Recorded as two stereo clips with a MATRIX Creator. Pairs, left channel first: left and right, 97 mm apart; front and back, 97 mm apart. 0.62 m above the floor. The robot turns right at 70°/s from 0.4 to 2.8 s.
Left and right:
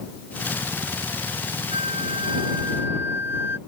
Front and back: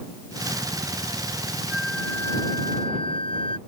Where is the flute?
100° right; by 3.6 s 25° right.